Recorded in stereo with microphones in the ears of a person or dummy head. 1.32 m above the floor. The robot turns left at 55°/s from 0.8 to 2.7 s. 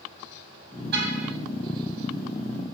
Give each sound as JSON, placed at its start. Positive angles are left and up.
{"t": 0.9, "sound": "a car horn", "side_deg": -65, "distance_m": 5.5}